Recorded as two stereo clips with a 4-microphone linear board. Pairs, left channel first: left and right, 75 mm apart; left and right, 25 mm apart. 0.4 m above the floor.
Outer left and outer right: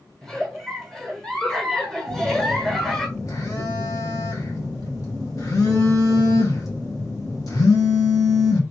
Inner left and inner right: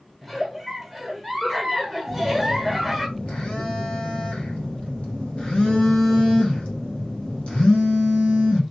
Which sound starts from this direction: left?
A phone buzzing, at 2.1 s.